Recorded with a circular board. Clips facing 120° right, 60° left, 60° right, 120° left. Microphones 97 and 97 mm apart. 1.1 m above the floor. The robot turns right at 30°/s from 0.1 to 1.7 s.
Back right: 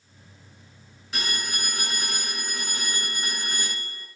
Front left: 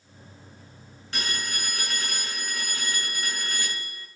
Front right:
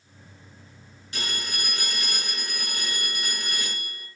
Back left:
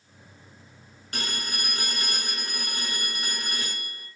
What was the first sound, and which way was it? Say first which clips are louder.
A phone ringing: back right 1 dB, even; 155° left.